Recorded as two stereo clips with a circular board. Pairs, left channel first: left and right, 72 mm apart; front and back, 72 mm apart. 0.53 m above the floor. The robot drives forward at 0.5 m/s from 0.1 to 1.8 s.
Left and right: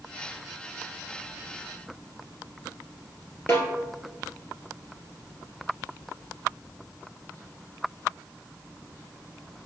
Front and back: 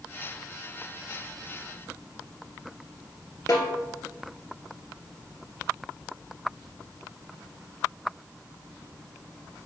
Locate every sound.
3.5 s a snare drum: 40° left, 1.9 m